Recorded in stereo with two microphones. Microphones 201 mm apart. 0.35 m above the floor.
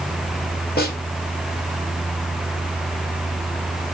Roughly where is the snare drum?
Left.